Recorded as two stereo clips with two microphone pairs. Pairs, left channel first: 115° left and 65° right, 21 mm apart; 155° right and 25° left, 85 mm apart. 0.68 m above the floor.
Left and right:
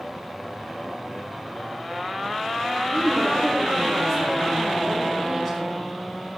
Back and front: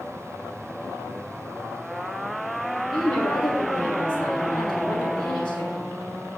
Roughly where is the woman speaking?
Behind.